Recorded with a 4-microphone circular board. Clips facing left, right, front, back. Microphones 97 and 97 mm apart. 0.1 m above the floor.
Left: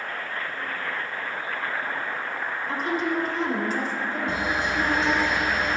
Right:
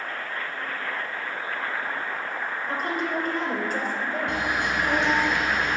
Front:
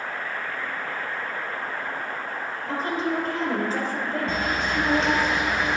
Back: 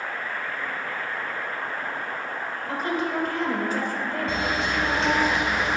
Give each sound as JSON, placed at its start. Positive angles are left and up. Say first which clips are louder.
{"t": 2.7, "sound": "a woman speaking", "louder": "left 2 dB, front 1 dB", "azimuth_deg": -60, "distance_m": 2.5}
{"t": 4.3, "sound": "a camera shutter", "louder": "left 2 dB, even", "azimuth_deg": -85, "distance_m": 2.0}